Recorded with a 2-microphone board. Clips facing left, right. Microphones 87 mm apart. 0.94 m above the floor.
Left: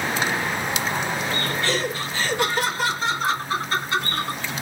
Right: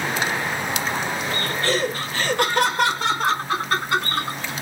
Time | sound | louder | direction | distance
1.6 | laughter | right 2 dB | 45° right (ahead or behind) | 1.4 m